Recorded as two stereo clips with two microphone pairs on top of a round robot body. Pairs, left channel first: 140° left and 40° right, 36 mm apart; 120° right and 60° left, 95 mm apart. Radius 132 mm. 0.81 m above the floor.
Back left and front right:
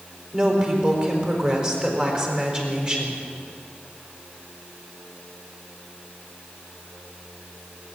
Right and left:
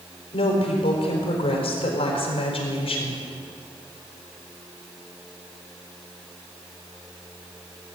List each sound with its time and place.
0.3 s a woman speaking: 100° right, 4.5 m